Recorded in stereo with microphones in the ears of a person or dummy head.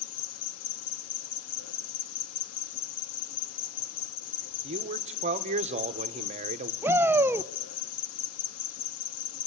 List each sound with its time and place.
0.0 s an insect: 80° left, 1.7 m
4.6 s a man speaking: 35° right (ahead or behind), 1.2 m
6.8 s a shout: 10° right (ahead or behind), 0.6 m